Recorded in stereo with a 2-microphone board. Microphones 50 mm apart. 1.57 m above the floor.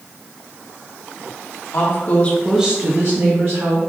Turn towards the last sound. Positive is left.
turn(degrees=-80)